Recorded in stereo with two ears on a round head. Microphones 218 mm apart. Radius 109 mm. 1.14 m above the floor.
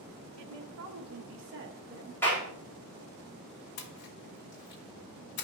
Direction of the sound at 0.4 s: 80° right.